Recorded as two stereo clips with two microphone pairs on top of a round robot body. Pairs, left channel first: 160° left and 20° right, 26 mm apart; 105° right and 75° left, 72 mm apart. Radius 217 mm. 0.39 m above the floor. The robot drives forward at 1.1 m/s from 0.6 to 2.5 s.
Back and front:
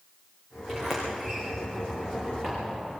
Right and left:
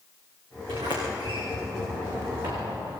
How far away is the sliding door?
About 9 m.